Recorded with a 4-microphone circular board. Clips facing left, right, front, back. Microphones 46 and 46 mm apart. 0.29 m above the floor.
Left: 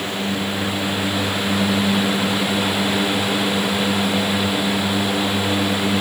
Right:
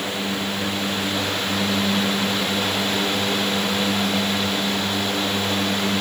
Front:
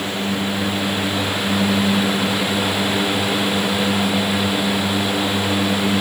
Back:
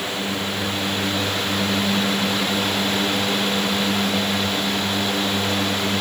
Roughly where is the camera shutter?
No camera shutter in this recording.